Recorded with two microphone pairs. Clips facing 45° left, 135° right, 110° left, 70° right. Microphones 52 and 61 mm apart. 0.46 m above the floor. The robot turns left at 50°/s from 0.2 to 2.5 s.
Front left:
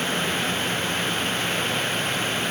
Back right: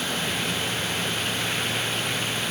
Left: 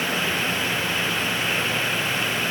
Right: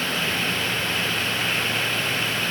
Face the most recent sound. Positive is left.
No sound to turn to.